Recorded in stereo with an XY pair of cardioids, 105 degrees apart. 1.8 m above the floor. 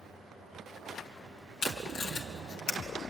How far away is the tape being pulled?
About 2.5 m.